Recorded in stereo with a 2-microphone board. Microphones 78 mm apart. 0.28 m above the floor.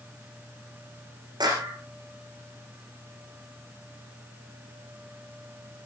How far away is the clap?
About 9.5 m.